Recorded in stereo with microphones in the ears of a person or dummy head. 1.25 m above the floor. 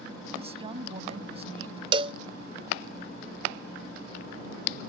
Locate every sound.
0.3 s a woman speaking: 30° right (ahead or behind)
1.9 s a cowbell: 30° right (ahead or behind)